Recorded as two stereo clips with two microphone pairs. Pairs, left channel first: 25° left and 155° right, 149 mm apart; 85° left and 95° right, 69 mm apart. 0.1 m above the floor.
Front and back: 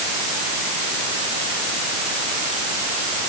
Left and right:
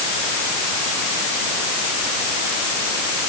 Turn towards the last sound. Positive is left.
No sound to turn to.